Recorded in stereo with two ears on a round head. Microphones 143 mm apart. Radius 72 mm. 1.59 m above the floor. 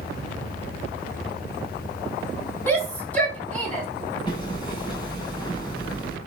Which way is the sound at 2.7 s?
10° left (ahead or behind).